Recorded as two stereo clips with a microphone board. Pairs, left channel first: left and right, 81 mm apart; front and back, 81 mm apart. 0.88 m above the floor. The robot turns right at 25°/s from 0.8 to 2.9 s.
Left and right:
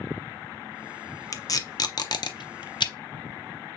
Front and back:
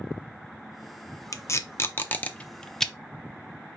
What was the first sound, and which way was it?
Tape being pulled, 45° left.